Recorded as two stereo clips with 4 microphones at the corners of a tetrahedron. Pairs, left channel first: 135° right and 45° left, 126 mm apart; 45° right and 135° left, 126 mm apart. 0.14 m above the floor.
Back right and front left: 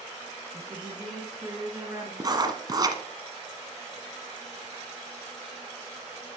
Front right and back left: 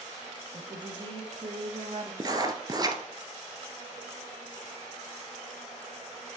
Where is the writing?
90° left, 1.1 m.